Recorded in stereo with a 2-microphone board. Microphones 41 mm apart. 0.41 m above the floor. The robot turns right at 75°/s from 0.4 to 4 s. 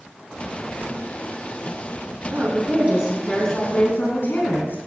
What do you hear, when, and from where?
2.3 s a woman speaking: 75° right, 3 m; by 4.8 s 55° left, 3 m